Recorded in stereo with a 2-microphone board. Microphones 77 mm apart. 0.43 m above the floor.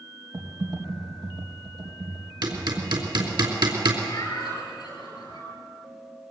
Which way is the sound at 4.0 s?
60° left (ahead or behind).